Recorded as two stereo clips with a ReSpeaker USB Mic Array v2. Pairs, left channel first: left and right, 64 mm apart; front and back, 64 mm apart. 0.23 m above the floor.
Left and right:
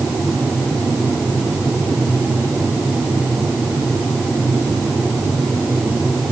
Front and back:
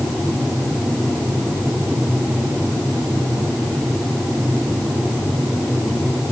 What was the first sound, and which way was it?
Only background noise.